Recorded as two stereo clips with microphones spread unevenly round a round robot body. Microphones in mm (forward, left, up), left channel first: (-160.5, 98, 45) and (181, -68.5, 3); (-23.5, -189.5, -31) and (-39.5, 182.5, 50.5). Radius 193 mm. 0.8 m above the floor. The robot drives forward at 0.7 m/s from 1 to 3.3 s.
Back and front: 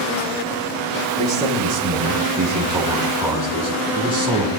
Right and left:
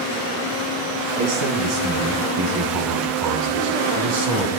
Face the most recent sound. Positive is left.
turn(degrees=60)